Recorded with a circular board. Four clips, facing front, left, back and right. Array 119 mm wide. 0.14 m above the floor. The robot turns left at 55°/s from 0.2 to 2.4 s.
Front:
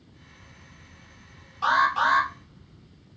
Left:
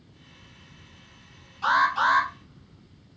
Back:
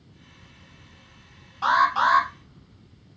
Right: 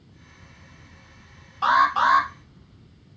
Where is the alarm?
115° right, 2.5 m; by 2.3 s 150° right, 2.5 m.